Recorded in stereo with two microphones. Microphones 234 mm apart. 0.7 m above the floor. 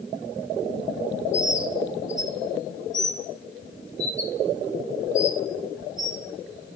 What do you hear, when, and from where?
1.3 s a bird: 55° left (ahead or behind), 4.5 m